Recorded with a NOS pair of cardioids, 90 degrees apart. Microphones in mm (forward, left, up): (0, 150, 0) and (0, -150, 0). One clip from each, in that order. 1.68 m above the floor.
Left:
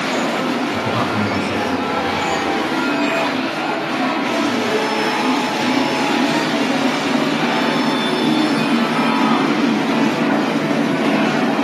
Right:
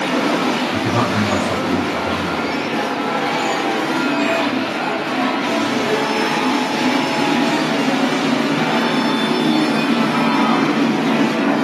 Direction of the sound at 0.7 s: 25° right.